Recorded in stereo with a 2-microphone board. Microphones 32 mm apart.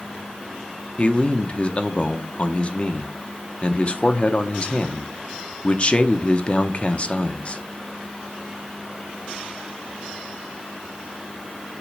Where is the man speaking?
35° left (ahead or behind), 0.9 m.